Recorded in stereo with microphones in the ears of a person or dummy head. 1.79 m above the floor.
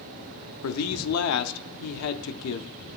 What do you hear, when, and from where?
0.6 s a man speaking: 80° left, 0.6 m